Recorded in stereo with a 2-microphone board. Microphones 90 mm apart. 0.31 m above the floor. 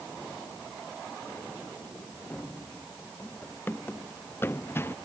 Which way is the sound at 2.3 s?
15° left (ahead or behind).